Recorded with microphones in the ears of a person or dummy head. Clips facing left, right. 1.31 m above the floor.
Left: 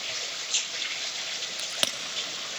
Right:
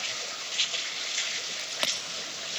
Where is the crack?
15° left (ahead or behind), 1.2 m.